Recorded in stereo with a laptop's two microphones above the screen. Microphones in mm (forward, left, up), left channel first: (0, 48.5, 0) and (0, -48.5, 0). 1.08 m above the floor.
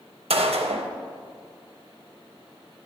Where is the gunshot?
75° right (ahead or behind), 0.6 m.